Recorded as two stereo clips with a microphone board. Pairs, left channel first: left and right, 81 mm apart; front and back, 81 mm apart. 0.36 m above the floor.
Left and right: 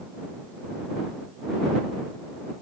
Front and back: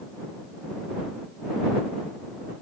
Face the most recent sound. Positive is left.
No sound to turn to.